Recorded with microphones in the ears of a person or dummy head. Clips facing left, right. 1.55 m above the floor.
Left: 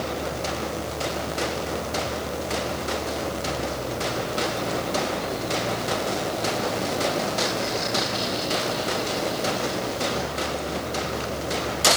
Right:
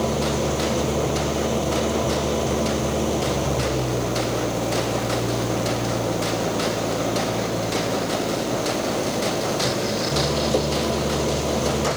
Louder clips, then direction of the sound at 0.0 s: Right 6 dB; 90° right.